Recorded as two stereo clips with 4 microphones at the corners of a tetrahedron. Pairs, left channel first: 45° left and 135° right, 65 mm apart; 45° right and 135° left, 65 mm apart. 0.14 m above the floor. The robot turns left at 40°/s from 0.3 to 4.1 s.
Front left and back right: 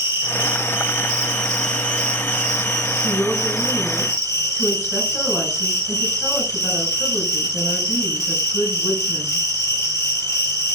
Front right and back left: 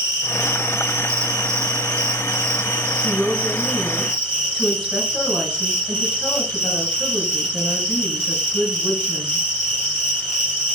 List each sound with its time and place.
0.0 s an insect: straight behind, 3.5 m; by 10.8 s 30° left, 3.5 m
3.0 s a woman speaking: 85° left, 1.9 m; by 9.4 s 45° left, 1.9 m